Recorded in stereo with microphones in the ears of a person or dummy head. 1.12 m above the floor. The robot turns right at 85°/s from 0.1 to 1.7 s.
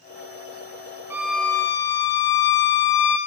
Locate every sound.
1.1 s a violin: 20° right, 0.6 m; by 3.2 s 30° left, 0.6 m